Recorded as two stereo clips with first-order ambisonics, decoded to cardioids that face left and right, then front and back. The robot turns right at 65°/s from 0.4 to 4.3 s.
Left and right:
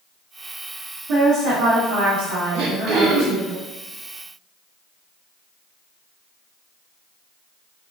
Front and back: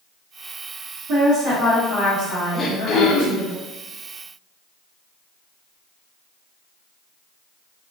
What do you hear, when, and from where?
1.1 s a woman speaking: 140° right, 1.0 m; by 3.5 s 20° left, 1.0 m
2.5 s throat clearing: 70° right, 0.5 m; by 3.5 s 15° right, 0.5 m